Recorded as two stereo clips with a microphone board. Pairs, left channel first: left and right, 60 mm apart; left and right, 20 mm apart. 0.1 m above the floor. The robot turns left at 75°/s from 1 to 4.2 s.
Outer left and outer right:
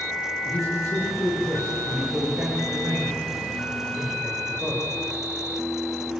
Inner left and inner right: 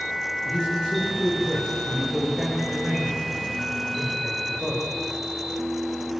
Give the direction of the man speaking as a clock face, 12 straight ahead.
10 o'clock.